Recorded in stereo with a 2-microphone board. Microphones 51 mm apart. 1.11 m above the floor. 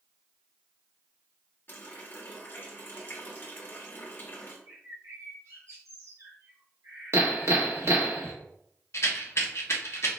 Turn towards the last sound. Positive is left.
turn(degrees=60)  # may be behind; listen again after turning